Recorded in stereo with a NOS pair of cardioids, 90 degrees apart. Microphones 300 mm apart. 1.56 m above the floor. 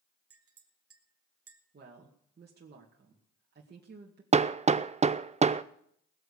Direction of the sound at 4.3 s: 25° right.